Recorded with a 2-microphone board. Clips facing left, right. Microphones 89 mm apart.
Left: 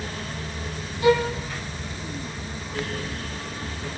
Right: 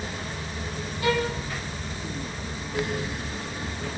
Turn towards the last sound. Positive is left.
turn(degrees=20)  # may be behind; listen again after turning